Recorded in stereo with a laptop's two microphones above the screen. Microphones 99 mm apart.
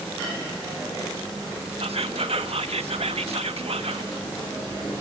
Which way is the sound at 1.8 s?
75° right (ahead or behind).